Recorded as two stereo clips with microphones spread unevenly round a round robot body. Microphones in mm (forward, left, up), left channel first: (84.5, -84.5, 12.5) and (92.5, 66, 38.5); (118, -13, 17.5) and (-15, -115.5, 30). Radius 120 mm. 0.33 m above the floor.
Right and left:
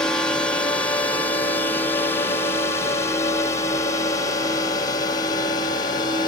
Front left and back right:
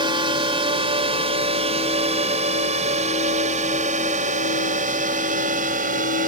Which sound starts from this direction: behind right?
A drone, at 0.0 s.